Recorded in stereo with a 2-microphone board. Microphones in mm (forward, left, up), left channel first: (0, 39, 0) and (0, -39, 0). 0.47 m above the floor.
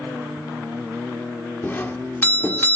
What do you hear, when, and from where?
1.6 s a doorbell: 25° left (ahead or behind), 1.4 m